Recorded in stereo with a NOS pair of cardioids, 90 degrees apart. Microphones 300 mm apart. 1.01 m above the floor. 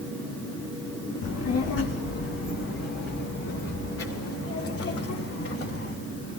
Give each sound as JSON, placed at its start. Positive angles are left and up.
{"t": 1.2, "sound": "a child speaking", "azimuth_deg": 55, "distance_m": 1.1}